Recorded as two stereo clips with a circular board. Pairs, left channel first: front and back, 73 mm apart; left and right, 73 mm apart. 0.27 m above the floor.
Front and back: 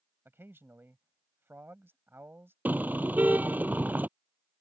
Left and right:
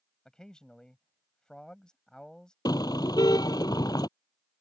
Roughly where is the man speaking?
Behind.